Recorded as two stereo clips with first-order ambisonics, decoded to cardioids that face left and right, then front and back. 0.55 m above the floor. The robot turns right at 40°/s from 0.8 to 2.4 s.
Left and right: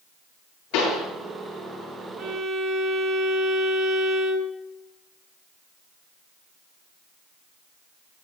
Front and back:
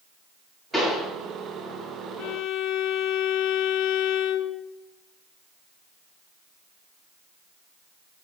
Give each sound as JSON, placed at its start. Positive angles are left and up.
{"t": 0.7, "sound": "a pop", "azimuth_deg": 100, "distance_m": 7.5}
{"t": 2.2, "sound": "a violin", "azimuth_deg": -35, "distance_m": 1.1}